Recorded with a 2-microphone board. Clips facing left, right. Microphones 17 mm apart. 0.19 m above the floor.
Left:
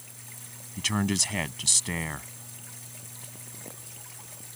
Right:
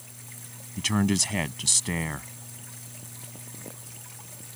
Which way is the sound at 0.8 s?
Centre (ahead or behind).